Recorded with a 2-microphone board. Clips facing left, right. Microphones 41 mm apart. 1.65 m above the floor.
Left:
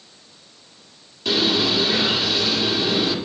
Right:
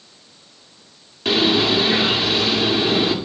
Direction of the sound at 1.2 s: 35° right (ahead or behind).